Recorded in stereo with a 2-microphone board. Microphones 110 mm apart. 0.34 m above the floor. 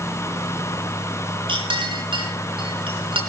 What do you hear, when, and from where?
1.5 s a clink: 55° right (ahead or behind), 3.5 m